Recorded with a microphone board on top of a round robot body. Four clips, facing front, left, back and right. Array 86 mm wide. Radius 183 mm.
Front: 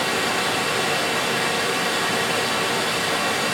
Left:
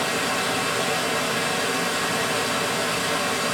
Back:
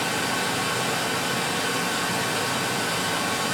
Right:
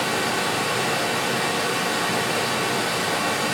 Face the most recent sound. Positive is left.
turn(degrees=-30)